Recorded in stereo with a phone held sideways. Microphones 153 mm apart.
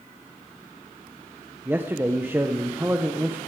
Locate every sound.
1.6 s a man speaking: 15° right (ahead or behind), 0.8 m